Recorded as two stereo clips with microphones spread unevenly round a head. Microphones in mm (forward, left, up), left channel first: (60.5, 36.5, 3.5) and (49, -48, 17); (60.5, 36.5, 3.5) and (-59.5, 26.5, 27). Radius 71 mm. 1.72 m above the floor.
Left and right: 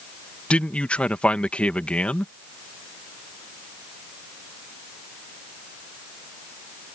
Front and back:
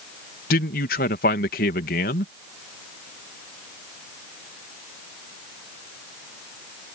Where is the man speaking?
5° left.